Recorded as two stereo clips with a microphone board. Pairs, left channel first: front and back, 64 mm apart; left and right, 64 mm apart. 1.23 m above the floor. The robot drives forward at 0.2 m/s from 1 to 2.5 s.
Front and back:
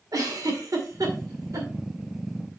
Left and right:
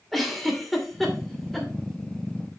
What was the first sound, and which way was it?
A giggle, straight behind.